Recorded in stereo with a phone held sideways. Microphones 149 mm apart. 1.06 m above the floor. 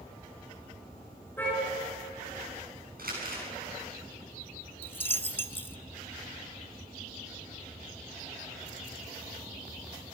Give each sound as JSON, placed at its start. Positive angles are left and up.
{"t": 1.4, "sound": "a car horn", "side_deg": 15, "distance_m": 9.5}
{"t": 3.0, "sound": "crumpling", "side_deg": -75, "distance_m": 7.0}
{"t": 4.8, "sound": "a dropped coin", "side_deg": 15, "distance_m": 0.6}